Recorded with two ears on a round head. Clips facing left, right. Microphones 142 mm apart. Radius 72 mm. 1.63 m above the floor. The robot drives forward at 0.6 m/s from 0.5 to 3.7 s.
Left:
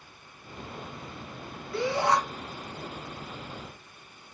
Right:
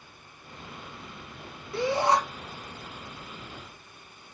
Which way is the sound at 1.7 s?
25° right (ahead or behind).